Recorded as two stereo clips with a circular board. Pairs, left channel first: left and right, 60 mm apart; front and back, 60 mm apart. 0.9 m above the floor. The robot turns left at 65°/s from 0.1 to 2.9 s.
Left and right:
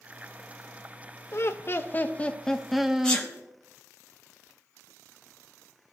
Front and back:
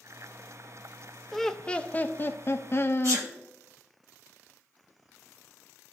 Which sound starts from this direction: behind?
A sneeze, at 3.0 s.